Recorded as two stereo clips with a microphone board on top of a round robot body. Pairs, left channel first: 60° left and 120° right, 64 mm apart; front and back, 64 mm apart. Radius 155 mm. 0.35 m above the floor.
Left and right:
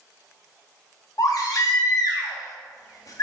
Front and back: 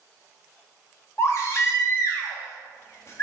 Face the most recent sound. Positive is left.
turn(degrees=45)